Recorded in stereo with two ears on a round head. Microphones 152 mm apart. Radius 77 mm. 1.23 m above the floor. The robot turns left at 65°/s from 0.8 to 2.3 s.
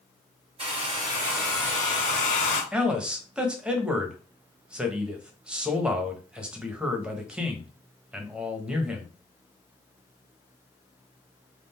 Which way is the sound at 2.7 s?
5° right (ahead or behind).